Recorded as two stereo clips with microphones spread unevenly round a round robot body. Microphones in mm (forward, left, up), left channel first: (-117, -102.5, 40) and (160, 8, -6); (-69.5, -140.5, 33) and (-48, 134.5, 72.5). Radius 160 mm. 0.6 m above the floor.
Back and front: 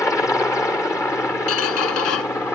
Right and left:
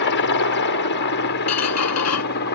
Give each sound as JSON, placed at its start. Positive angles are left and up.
{"t": 0.0, "sound": "a helicopter", "azimuth_deg": -75}
{"t": 1.5, "sound": "a squeak", "azimuth_deg": -120}